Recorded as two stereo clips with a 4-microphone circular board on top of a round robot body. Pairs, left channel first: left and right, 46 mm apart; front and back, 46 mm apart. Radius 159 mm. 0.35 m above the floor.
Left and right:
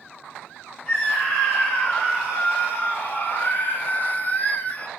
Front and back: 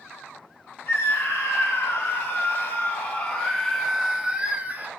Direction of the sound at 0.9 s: 30° left.